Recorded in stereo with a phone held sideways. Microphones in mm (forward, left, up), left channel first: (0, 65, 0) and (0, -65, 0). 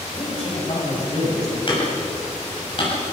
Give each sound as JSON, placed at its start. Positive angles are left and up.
{"t": 0.1, "sound": "a man speaking", "side_deg": 50, "distance_m": 7.5}
{"t": 1.7, "sound": "hammering", "side_deg": 40, "distance_m": 7.0}